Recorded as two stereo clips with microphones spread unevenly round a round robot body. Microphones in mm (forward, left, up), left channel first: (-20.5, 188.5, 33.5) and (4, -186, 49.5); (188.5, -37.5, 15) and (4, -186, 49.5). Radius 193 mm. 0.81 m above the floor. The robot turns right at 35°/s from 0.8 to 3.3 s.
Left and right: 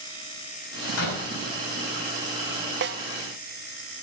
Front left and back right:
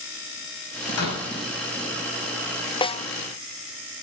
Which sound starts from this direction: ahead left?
A door slam, at 1.0 s.